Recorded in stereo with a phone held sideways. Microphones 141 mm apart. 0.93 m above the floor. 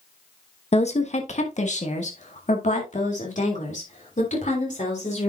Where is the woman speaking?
50° left (ahead or behind), 1.0 m; by 5.3 s 60° left (ahead or behind), 3.5 m.